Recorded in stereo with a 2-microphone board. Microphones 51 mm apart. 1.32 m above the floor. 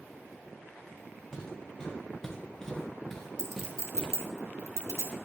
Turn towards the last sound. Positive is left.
turn(degrees=-80)